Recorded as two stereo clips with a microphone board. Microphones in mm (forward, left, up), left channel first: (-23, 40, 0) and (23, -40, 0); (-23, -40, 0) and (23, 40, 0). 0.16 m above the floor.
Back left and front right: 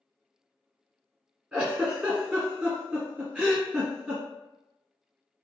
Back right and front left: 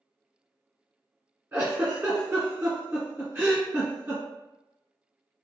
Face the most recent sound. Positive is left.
turn(degrees=20)